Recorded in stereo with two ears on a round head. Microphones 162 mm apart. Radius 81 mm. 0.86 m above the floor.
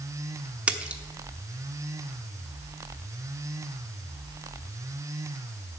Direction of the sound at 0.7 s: 10° right (ahead or behind).